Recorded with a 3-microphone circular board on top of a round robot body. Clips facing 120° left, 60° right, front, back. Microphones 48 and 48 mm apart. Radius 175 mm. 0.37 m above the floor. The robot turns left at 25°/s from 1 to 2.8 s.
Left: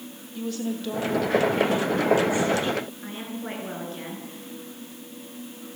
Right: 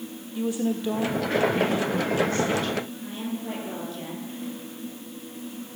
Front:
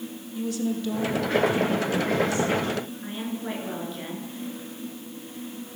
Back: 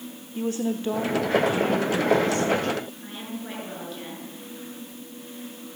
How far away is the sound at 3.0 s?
About 9.5 m.